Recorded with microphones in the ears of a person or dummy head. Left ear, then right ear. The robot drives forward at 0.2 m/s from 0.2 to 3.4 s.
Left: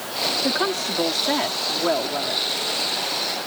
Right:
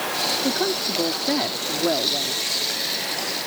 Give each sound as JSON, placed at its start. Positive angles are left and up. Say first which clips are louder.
{"t": 0.4, "sound": "a woman speaking", "louder": "left 1 dB", "side_deg": 40}